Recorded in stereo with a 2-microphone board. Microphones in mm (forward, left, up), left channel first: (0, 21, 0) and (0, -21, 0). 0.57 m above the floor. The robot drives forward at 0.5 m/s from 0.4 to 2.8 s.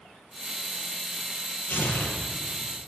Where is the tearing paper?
50° left (ahead or behind), 2.5 m; by 2.9 s 60° left (ahead or behind), 2 m.